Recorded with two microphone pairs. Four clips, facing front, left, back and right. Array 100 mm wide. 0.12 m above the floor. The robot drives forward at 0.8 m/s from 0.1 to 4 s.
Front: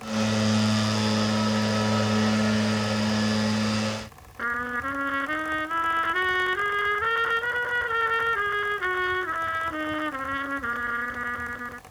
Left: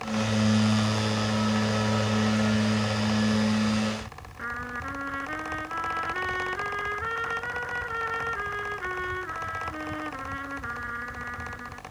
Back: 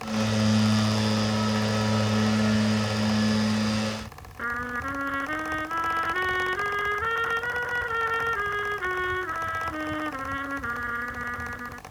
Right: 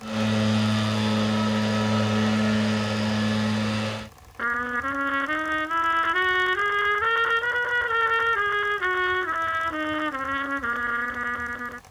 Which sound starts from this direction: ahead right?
A trumpet, at 4.4 s.